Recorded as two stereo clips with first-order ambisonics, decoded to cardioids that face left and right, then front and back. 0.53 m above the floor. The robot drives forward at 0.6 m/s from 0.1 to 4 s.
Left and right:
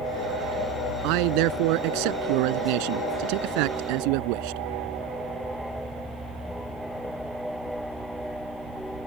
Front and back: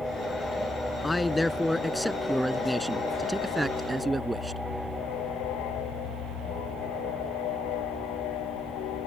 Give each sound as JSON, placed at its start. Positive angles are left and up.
{"t": 1.0, "sound": "a man speaking", "azimuth_deg": -80}